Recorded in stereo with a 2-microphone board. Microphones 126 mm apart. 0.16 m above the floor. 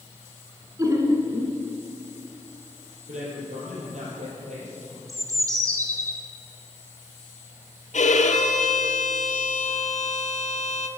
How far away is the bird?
About 1.6 m.